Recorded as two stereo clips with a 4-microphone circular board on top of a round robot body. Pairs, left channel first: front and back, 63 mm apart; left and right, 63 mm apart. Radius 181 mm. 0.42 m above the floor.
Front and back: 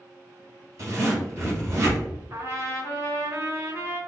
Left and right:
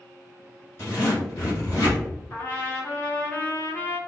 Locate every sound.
0.8 s a zipper: 130° left, 1.2 m
2.3 s a trumpet: 140° left, 1.2 m